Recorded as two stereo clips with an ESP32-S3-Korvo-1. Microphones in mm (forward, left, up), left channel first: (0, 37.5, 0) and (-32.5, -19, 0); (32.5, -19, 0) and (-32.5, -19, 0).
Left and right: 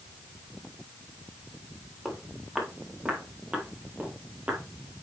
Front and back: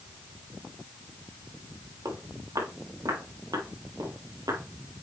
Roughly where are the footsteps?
Behind.